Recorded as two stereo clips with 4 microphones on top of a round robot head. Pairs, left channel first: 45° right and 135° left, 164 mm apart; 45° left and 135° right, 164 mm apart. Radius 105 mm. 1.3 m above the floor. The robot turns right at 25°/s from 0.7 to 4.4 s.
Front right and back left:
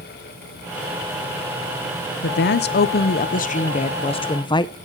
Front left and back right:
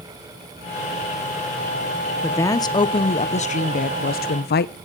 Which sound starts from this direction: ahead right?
A woman speaking, at 2.2 s.